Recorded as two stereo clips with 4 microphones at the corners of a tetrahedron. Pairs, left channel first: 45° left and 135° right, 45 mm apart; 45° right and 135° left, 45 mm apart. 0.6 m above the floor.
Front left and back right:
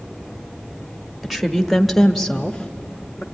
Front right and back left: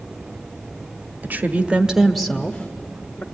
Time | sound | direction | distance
1.2 | a woman speaking | 145° left | 1.1 m